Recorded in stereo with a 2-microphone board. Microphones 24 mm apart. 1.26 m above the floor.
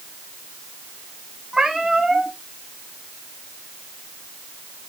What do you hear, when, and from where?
1.5 s a cat meowing: 25° right (ahead or behind), 2.5 m